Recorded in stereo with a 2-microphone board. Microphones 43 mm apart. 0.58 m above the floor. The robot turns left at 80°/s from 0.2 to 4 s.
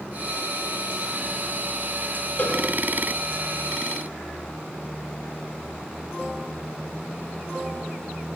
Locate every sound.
2.4 s a cowbell: 40° left (ahead or behind), 6.5 m; by 2.6 s 55° left (ahead or behind), 6.5 m